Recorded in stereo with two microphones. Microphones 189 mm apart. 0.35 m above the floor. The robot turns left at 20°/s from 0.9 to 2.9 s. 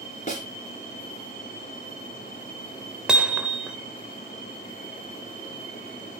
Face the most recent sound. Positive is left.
turn(degrees=-5)  # may be behind; listen again after turning